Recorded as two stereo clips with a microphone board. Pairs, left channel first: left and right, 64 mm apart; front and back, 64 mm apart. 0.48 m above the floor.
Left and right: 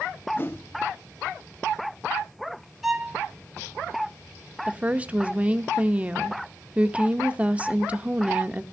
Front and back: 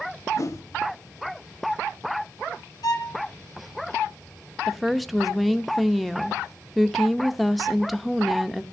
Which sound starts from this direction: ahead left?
A whoosh, at 0.4 s.